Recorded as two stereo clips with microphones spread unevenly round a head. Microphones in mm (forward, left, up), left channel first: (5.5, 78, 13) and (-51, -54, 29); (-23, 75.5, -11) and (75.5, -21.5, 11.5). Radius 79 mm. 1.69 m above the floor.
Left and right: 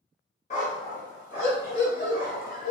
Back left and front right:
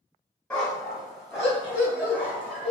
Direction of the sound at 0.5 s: 50° left.